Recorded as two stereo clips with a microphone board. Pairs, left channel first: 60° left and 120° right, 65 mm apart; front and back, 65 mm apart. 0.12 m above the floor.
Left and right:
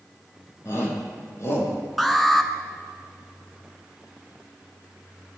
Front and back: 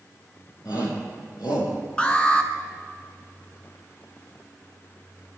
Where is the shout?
20° left, 5.5 m; by 1.8 s 15° left, 5 m.